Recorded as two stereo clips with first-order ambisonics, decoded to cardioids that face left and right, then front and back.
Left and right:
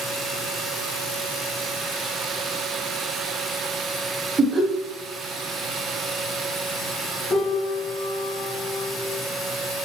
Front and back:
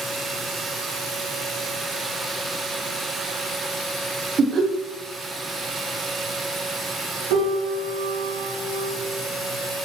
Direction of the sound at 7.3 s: Straight behind.